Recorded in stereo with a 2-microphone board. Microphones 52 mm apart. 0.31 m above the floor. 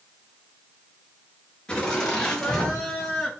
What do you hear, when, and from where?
1.7 s laughter: 20° left (ahead or behind), 5 m; by 3.3 s 10° left (ahead or behind), 5.5 m